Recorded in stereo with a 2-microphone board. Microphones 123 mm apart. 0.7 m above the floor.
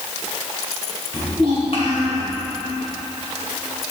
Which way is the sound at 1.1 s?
50° left (ahead or behind).